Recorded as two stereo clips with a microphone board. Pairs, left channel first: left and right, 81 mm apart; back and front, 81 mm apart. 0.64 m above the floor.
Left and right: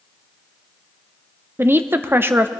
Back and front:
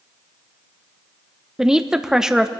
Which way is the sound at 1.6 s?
75° right.